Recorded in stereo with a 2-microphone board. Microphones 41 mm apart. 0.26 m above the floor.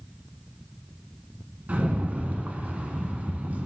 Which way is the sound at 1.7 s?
40° right (ahead or behind).